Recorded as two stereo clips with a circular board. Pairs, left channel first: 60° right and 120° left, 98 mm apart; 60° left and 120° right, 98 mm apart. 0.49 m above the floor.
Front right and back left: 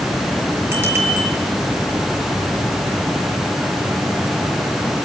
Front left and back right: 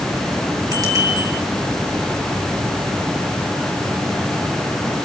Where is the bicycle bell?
175° right, 6.5 m.